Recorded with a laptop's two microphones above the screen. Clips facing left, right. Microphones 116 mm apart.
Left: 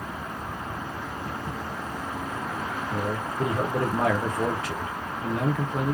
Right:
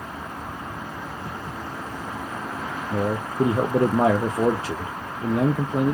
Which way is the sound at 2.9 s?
30° right (ahead or behind).